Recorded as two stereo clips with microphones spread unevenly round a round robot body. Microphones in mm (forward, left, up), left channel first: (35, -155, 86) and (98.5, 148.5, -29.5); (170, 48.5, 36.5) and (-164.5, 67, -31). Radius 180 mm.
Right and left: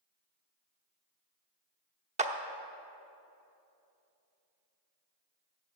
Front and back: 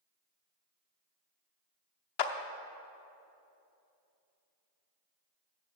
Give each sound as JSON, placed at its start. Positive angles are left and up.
{"t": 2.2, "sound": "a clap", "azimuth_deg": 20, "distance_m": 0.9}